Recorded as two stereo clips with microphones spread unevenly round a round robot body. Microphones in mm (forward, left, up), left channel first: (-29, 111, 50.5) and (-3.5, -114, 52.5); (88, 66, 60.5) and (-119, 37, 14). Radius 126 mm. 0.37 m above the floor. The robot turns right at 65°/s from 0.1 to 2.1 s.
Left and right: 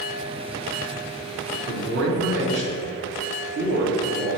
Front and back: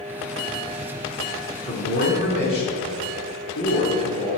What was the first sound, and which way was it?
A man speaking, 75° right.